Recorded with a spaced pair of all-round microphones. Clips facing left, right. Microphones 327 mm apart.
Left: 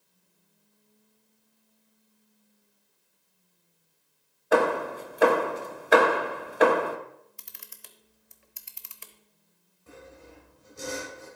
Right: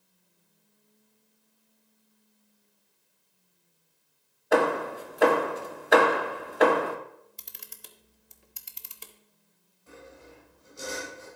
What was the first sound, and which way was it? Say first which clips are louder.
Hammering: left 1 dB; centre (ahead or behind).